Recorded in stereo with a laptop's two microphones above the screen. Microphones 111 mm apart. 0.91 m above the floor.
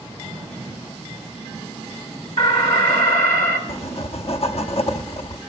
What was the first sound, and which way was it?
An alarm, 75° left (ahead or behind).